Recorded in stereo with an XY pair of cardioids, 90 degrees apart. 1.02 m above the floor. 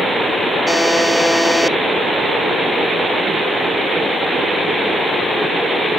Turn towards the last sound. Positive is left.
turn(degrees=5)